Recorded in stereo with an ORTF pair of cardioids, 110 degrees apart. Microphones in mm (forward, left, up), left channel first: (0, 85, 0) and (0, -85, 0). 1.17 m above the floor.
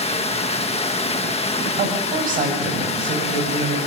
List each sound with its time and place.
0.0 s running water: 40° left, 1.4 m
1.8 s a woman speaking: 55° right, 8.5 m